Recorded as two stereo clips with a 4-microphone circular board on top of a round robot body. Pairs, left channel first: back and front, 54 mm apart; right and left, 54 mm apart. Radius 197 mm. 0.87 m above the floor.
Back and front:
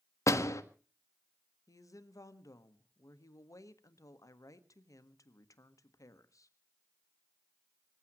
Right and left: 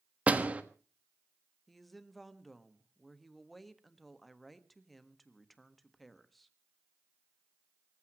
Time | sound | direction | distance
0.3 | a door slam | 155° left | 1.6 m
1.7 | a woman speaking | straight behind | 1.7 m